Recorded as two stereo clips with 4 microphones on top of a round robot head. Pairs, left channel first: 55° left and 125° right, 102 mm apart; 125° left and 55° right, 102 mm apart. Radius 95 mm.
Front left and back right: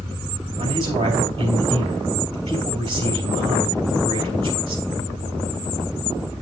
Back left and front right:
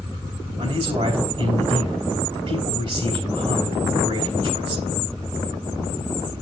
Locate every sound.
0.6 s a man speaking: 80° right, 3.5 m